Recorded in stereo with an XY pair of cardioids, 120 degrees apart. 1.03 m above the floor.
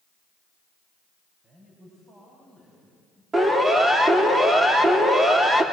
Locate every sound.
1.4 s a man speaking: 35° right, 7.5 m; by 3.2 s 25° right, 8 m
3.3 s a siren: 25° right, 4 m